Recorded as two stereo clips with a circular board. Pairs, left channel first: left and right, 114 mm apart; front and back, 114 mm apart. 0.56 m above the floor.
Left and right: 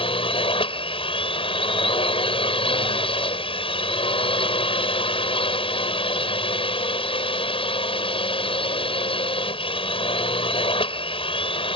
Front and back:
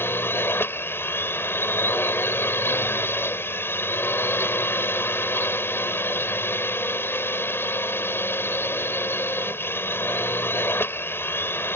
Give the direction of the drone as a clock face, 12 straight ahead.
10 o'clock.